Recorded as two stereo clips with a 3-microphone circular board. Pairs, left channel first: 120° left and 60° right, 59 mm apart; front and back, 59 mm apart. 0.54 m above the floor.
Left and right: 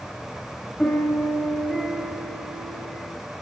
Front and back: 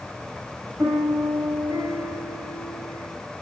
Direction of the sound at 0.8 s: 155° right.